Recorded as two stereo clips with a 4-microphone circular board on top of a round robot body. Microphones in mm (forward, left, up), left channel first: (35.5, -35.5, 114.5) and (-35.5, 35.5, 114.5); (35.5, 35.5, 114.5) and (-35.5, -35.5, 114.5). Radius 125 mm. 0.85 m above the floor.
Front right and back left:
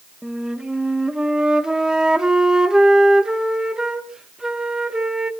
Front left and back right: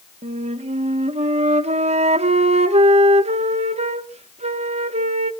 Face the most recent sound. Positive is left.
turn(degrees=-140)